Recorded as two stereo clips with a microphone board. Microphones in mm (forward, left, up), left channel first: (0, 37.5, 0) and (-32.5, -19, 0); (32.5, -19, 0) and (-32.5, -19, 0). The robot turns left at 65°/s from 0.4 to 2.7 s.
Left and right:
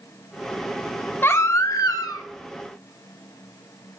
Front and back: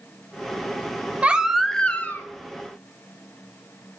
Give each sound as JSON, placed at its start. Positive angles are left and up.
{"t": 1.2, "sound": "a baby crying", "azimuth_deg": 115, "distance_m": 0.6}